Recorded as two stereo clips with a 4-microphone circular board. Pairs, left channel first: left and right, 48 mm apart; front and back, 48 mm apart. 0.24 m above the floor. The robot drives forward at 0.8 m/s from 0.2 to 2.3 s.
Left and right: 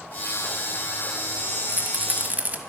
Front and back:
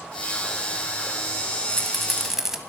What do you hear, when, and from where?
1.7 s a rattle: 70° right, 1.3 m; by 2.6 s 105° right, 1.3 m